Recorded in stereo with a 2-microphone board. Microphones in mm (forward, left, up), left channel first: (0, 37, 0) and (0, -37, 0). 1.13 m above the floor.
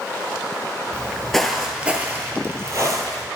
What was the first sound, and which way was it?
Footsteps, 15° left (ahead or behind).